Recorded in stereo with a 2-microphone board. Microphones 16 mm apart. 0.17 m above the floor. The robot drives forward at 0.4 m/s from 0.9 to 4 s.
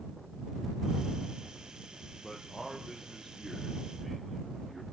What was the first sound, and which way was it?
A man speaking, 20° left (ahead or behind).